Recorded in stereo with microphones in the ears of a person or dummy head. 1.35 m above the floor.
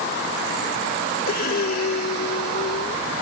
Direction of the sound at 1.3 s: 45° left (ahead or behind).